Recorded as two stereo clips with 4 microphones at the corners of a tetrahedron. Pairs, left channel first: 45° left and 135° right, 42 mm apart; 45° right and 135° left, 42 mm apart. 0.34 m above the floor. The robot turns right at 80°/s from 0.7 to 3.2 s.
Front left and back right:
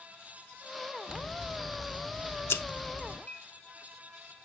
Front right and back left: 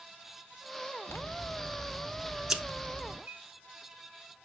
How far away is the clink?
About 3 m.